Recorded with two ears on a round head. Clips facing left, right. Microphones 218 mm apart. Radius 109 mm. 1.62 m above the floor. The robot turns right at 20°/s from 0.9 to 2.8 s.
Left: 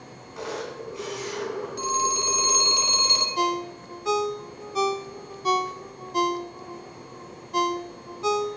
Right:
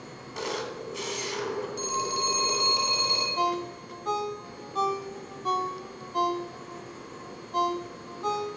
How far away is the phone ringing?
About 2.5 m.